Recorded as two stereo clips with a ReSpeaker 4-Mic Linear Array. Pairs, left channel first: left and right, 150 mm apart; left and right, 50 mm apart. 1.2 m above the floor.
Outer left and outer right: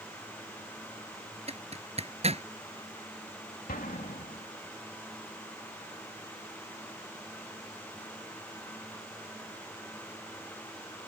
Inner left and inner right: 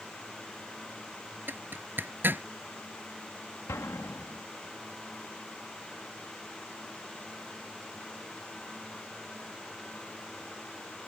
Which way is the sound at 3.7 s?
70° left (ahead or behind).